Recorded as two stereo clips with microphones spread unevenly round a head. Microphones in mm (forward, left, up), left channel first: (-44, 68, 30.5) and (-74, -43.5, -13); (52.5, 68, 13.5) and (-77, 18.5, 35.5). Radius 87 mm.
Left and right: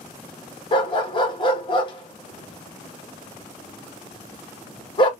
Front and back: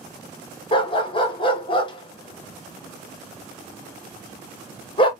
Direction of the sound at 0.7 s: 75° left.